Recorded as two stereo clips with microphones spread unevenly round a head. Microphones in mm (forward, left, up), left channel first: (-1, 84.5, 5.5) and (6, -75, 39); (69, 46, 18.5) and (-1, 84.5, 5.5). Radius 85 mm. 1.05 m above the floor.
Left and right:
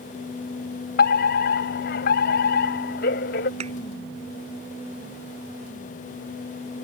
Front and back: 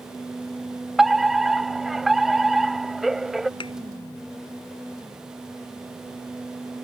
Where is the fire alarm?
65° left.